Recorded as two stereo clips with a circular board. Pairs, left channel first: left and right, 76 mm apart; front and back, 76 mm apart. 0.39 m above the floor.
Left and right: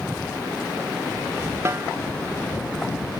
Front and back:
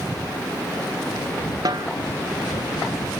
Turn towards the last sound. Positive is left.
turn(degrees=-145)